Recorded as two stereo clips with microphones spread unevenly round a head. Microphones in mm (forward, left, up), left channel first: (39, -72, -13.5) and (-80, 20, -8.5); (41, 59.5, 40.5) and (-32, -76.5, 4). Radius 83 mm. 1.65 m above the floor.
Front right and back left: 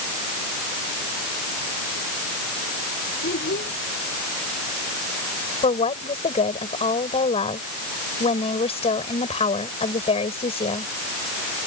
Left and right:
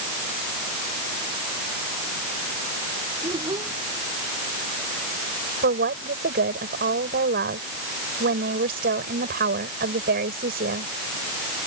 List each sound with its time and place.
3.2 s a child speaking: 55° right
5.6 s a woman speaking: 90° right